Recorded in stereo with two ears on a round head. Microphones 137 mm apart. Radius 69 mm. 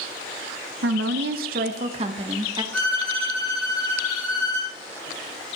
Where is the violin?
10° left (ahead or behind), 5.5 m.